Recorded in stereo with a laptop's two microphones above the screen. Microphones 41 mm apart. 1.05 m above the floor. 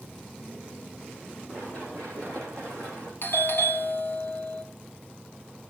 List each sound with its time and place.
1.5 s running footsteps: 25° left (ahead or behind), 7 m
3.2 s a doorbell: 60° left (ahead or behind), 1.5 m